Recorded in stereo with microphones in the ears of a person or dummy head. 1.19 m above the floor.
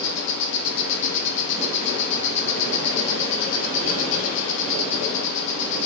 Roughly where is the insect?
Left.